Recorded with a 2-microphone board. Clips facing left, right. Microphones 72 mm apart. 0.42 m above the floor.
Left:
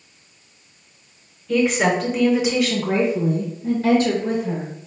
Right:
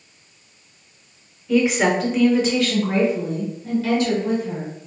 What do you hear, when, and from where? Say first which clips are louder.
1.5 s a woman speaking: right 1 dB; 10° right (ahead or behind), 1.2 m; by 4.7 s 40° left (ahead or behind), 1.6 m